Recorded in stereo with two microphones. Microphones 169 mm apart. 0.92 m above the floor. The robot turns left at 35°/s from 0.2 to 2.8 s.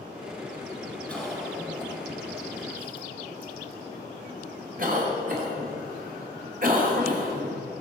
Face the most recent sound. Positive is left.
turn(degrees=-50)  # may be behind; listen again after turning